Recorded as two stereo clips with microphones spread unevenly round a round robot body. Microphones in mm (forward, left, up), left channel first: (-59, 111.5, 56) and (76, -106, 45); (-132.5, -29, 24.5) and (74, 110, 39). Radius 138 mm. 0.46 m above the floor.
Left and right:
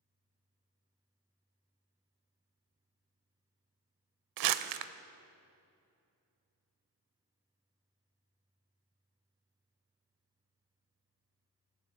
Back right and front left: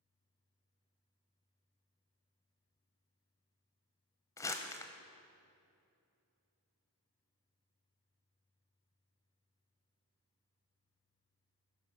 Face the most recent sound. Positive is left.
turn(degrees=-65)